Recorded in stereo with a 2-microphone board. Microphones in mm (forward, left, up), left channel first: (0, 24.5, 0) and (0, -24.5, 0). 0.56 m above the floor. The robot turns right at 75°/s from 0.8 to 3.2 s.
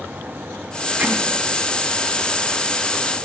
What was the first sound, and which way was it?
Hammering, 30° right (ahead or behind).